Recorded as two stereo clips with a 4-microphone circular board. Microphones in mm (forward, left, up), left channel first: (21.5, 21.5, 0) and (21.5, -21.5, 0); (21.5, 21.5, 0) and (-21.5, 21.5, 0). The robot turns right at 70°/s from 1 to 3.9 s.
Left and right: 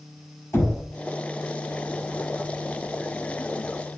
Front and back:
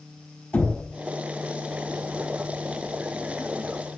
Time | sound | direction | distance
0.5 | knocking | 55° left | 4.5 m